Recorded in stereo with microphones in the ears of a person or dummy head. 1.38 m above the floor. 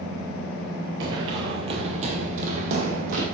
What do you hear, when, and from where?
1.0 s running footsteps: 20° right (ahead or behind), 1.4 m; by 3.2 s 45° right (ahead or behind), 3 m